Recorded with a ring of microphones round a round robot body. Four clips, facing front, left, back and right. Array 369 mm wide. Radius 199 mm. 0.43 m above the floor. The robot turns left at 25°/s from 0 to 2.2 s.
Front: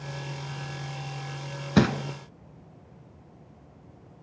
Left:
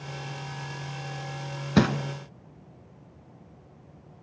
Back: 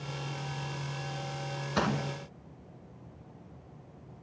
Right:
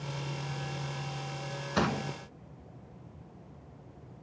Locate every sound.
1.8 s crumpling: 45° left, 1.5 m; by 1.9 s 40° left, 1.5 m